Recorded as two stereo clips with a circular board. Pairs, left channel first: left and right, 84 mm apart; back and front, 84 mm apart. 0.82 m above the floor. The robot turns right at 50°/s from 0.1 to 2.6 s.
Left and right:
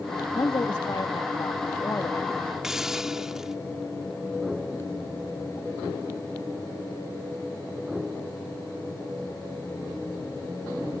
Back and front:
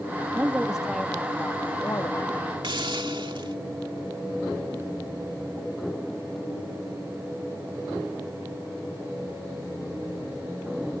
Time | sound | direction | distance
0.3 | a woman speaking | 60° left | ?
2.6 | a hiss | 5° right | ?